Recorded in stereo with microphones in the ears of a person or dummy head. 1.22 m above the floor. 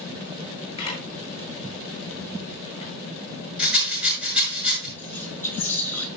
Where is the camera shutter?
30° left (ahead or behind), 8.5 m.